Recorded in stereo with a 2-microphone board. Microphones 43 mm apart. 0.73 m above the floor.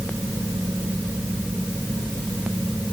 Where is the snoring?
I don't hear snoring.